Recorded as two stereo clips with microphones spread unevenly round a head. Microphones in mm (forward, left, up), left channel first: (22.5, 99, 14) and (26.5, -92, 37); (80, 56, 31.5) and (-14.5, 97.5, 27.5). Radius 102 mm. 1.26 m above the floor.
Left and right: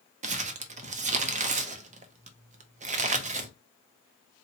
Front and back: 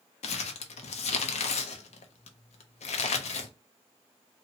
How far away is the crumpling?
About 0.5 m.